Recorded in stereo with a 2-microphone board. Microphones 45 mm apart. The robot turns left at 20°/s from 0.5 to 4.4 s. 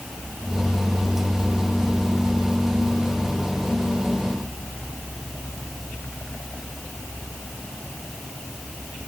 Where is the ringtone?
I don't hear a ringtone.